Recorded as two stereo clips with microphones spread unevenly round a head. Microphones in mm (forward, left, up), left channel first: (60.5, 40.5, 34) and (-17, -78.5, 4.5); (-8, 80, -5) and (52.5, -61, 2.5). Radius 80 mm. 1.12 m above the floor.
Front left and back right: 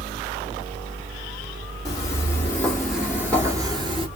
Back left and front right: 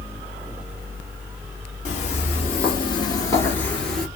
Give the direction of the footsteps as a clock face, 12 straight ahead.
9 o'clock.